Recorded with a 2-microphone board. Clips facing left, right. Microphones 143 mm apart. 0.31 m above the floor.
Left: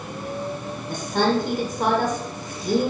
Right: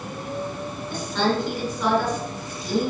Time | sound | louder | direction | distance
0.9 | a woman speaking | left 2 dB | 60° left (ahead or behind) | 2.5 m